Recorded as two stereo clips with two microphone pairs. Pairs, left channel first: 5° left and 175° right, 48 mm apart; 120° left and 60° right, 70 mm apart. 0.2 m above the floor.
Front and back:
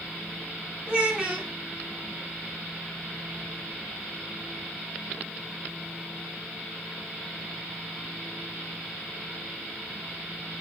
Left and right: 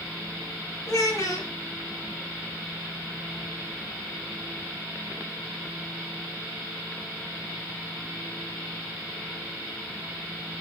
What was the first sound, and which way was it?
A child speaking, 125° left.